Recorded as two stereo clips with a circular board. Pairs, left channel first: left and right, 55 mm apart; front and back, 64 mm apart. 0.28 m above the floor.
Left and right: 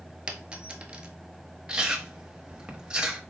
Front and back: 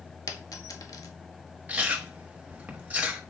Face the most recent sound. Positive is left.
turn(degrees=-145)